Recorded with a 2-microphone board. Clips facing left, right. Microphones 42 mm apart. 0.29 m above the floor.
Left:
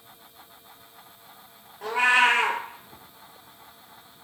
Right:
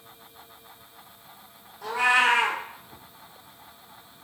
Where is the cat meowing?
45° left (ahead or behind), 0.8 m.